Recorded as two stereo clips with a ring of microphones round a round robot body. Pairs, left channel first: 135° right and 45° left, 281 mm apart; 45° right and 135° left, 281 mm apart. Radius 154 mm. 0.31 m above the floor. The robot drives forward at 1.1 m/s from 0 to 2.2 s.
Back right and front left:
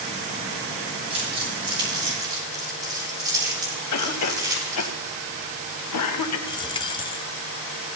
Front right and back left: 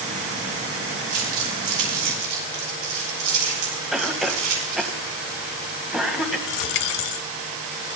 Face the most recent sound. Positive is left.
turn(degrees=-60)